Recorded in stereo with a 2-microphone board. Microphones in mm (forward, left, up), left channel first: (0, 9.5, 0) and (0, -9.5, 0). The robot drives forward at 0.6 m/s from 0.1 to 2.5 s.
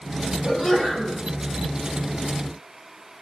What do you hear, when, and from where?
0.4 s a sneeze: 5° left (ahead or behind), 3.5 m